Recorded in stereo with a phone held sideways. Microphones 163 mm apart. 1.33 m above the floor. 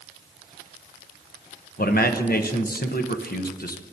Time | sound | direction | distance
1.8 | a man speaking | 70° left (ahead or behind) | 0.7 m